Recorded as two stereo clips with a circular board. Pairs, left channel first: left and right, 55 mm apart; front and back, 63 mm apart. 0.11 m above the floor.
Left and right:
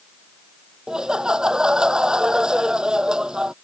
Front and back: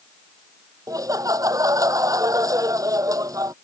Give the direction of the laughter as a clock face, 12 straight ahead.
6 o'clock.